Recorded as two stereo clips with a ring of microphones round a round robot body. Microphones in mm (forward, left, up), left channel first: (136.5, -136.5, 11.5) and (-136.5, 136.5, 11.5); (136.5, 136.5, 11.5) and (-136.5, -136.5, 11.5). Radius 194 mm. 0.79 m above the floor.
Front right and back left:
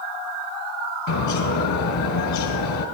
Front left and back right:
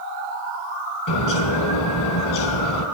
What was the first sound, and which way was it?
A bird, straight ahead.